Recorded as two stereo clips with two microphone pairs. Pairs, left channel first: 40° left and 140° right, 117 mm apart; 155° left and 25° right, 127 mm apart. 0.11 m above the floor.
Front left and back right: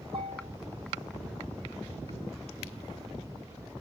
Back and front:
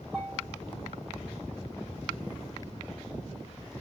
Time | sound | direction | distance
0.1 | a bell | 105° right | 7 m